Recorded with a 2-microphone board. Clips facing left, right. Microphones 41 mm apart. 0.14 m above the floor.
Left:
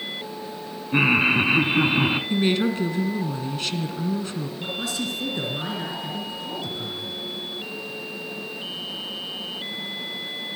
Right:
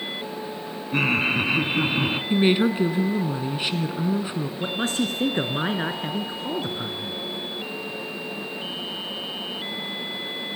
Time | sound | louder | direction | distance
0.9 | laughter | left 3 dB | 15° left (ahead or behind) | 1.0 m
2.3 | a woman speaking | right 2 dB | 20° right (ahead or behind) | 1.6 m
4.6 | a man speaking | right 5 dB | 40° right (ahead or behind) | 2 m